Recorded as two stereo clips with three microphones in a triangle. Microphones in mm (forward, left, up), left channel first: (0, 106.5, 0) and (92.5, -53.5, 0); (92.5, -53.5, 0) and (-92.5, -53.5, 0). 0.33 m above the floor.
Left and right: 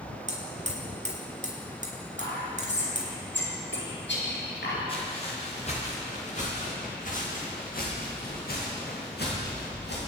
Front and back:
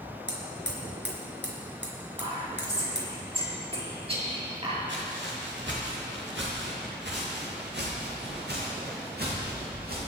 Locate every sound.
0.3 s hammering: 10° right, 3.5 m
2.2 s whispering: 120° left, 5.5 m
4.9 s footsteps: straight behind, 6 m; by 10.0 s 145° left, 7 m